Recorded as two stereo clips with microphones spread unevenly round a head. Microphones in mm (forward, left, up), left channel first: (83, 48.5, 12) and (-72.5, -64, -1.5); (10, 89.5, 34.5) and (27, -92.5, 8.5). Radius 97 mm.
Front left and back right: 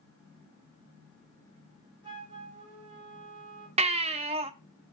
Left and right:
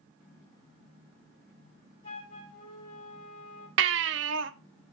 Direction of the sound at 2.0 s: 150° left.